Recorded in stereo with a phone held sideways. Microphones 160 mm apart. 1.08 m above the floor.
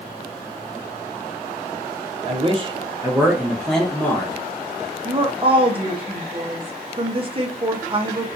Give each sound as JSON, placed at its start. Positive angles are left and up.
{"t": 2.3, "sound": "a man speaking", "side_deg": -40, "distance_m": 0.7}
{"t": 5.0, "sound": "a woman speaking", "side_deg": -35, "distance_m": 0.7}